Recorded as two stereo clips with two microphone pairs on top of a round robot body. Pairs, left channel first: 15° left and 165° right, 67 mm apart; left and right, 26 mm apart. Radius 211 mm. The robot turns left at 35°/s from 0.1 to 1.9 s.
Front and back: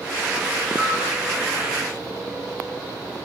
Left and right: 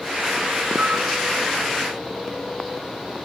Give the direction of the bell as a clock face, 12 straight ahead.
3 o'clock.